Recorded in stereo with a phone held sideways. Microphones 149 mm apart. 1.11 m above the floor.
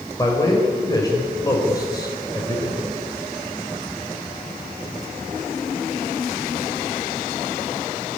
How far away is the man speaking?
About 4 m.